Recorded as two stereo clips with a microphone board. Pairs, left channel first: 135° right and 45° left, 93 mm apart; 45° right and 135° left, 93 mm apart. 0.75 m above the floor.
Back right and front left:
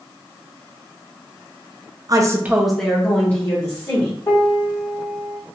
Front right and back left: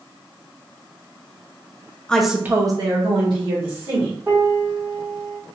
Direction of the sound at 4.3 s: 165° right.